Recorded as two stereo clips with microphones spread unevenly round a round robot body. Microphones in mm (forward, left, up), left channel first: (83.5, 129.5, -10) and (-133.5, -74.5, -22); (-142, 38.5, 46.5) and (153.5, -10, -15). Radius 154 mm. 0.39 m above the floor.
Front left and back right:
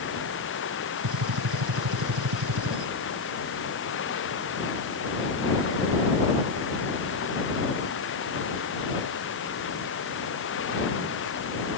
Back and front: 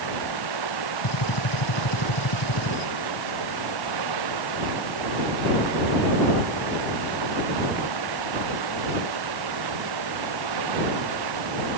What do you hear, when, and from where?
0.0 s running water: 10° right
1.0 s a gunshot: 165° right